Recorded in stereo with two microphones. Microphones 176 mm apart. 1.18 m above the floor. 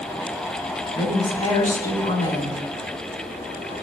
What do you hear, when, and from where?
0.9 s a woman speaking: 45° left (ahead or behind), 6.5 m